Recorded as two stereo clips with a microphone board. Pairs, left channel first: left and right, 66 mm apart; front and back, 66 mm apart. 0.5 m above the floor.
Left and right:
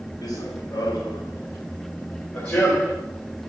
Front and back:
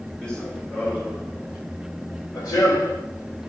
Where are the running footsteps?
75° left, 4 m; by 3.0 s 5° left, 2.5 m.